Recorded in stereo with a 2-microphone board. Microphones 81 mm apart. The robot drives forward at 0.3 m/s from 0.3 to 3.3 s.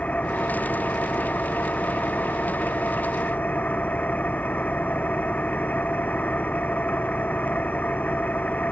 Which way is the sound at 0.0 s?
20° left (ahead or behind).